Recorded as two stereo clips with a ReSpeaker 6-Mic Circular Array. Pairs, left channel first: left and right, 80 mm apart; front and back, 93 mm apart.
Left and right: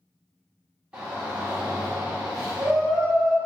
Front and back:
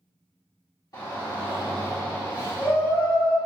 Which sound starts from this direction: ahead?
A shout, at 0.9 s.